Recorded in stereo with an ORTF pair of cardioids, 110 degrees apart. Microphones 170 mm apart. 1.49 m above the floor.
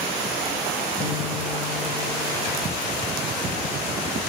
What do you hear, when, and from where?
1.0 s a guitar: 45° left, 2 m